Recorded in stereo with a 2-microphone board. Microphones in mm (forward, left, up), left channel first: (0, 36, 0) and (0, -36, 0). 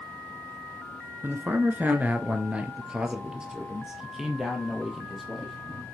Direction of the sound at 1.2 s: 30° right (ahead or behind).